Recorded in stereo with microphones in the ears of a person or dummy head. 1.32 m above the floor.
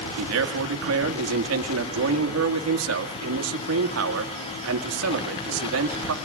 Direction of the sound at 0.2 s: 80° right.